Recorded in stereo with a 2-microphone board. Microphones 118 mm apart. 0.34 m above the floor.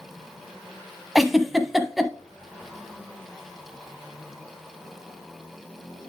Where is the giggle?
Centre (ahead or behind), 0.7 m.